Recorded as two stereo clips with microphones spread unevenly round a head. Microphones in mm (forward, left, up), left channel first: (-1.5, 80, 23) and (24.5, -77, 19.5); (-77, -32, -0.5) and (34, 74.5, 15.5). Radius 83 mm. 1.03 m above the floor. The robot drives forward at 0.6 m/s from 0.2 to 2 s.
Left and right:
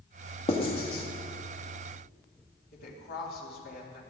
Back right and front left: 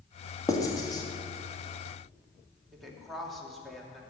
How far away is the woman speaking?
About 2.5 m.